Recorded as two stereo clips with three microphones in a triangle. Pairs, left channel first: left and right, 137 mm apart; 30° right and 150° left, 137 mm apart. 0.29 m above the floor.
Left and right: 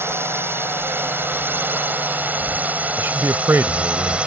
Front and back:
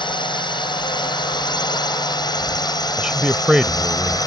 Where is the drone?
30° right; by 4.3 s 15° right.